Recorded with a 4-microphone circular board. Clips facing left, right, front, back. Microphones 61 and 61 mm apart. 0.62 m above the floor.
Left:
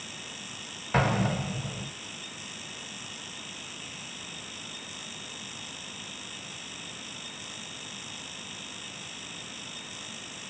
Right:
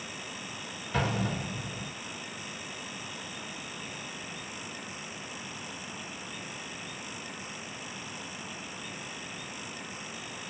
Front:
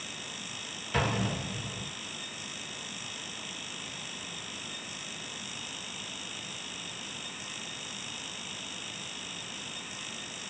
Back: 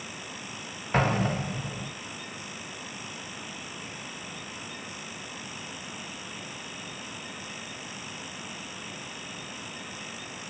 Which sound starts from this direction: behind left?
An explosion, at 0.9 s.